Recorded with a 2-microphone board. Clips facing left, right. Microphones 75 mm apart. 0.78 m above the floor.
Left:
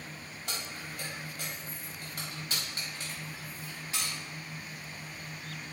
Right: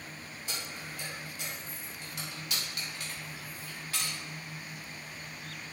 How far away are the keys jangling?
About 4 m.